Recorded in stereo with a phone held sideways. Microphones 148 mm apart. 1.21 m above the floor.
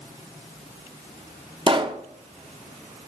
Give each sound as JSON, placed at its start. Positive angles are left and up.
{"t": 1.7, "sound": "a pop", "side_deg": -35, "distance_m": 0.8}